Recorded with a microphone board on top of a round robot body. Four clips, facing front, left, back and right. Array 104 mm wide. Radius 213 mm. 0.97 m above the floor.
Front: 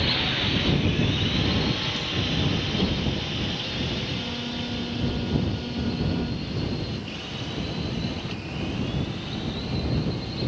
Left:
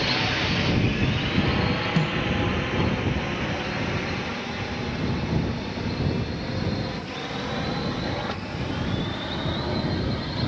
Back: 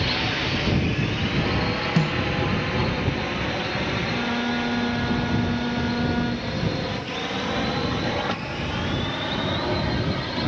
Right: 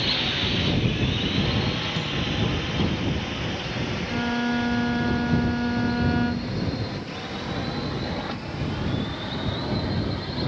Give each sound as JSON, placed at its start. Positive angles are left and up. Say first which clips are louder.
{"t": 0.0, "sound": "a drone", "louder": "left 3 dB, back 2 dB", "azimuth_deg": 125}
{"t": 2.0, "sound": "a snare drum", "louder": "left 4 dB, back 8 dB", "azimuth_deg": 160}
{"t": 4.1, "sound": "a violin", "louder": "right 6 dB, back 7 dB", "azimuth_deg": -125}